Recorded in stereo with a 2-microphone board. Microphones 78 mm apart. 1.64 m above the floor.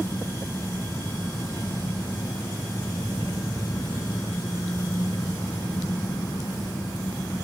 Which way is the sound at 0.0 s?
55° left (ahead or behind).